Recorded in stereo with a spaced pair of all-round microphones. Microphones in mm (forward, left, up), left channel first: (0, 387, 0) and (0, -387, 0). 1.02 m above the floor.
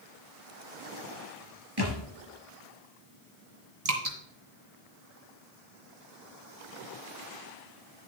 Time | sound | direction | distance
1.8 | a thud | 30° right (ahead or behind) | 3.5 m
3.9 | dripping | 50° right (ahead or behind) | 2.5 m